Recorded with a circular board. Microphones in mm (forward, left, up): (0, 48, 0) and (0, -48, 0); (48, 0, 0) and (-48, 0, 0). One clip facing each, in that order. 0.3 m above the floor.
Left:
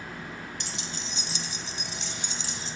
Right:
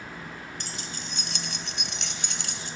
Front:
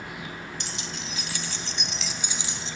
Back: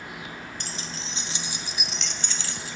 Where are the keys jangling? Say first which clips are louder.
Even, even; 135° right, 3 m; by 2.8 s 65° right, 3 m.